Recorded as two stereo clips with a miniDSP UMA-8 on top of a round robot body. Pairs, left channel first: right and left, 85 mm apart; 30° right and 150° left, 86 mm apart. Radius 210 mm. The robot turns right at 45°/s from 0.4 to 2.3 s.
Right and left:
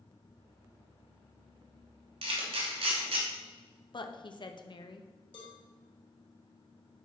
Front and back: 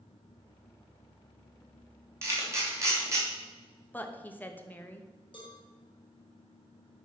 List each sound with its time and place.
2.2 s a camera shutter: 85° left, 3 m; by 3.2 s 90° left, 3 m
3.9 s a woman speaking: 95° right, 1.3 m
5.3 s a cowbell: 65° right, 2.5 m